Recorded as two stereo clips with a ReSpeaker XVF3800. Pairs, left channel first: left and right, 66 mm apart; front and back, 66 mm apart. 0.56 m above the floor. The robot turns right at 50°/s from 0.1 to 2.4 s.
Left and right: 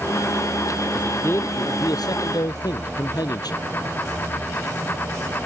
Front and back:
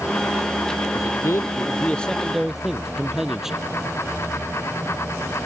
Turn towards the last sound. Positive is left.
turn(degrees=95)